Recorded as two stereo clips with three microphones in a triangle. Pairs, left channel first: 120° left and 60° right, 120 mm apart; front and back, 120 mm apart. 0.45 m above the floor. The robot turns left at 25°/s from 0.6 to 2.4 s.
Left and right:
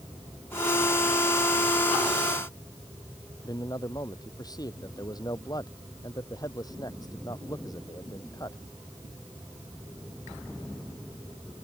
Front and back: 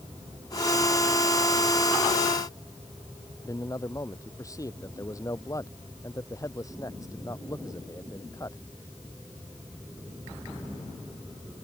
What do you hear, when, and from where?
3.4 s a man speaking: 65° left